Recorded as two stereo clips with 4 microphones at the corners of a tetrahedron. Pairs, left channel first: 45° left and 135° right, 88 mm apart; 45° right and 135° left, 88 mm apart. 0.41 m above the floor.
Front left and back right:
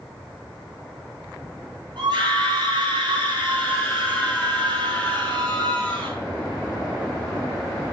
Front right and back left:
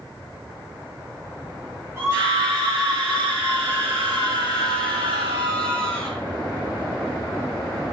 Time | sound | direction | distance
2.0 | a scream | 160° right | 5 m